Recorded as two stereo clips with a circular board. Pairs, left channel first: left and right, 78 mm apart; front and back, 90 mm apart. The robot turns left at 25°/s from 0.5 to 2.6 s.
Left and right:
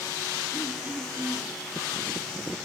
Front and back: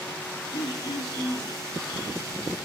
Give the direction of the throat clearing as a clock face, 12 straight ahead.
1 o'clock.